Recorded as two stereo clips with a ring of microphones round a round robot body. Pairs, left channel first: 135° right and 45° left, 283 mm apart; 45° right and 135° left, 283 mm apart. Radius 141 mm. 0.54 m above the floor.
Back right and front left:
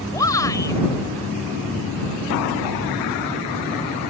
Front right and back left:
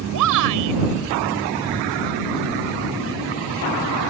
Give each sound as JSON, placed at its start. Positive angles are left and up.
{"t": 0.1, "sound": "a shout", "azimuth_deg": 150}